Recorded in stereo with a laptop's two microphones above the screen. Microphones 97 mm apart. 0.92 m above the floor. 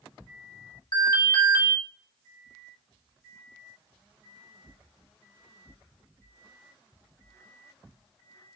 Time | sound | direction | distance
0.9 | an alarm | 45° left (ahead or behind) | 1.8 m